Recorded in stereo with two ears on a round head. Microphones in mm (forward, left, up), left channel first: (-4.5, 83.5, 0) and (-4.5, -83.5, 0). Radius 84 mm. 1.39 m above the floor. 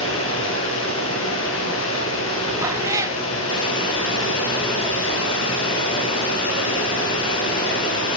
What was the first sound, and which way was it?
Running water, 80° left.